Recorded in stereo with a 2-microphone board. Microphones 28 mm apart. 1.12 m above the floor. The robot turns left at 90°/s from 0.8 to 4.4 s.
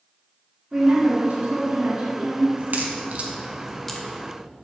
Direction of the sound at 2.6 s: 70° right (ahead or behind).